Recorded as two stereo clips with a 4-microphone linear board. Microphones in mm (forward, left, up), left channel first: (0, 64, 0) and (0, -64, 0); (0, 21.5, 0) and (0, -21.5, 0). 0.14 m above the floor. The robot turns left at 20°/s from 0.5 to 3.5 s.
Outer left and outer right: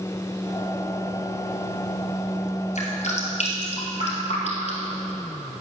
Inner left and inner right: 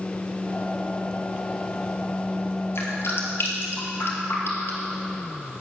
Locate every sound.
2.8 s dripping: 65° left (ahead or behind), 2 m; by 4.9 s 60° left (ahead or behind), 2 m